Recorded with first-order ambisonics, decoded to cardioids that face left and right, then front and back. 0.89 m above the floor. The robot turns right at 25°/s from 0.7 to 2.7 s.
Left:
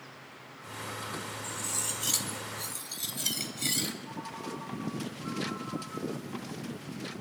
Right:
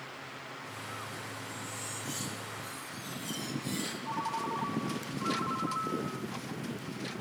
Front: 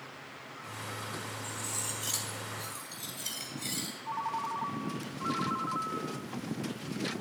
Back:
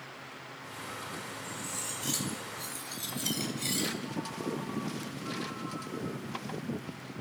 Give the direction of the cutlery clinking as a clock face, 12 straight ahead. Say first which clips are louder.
Left 5 dB, front 1 dB; 10 o'clock.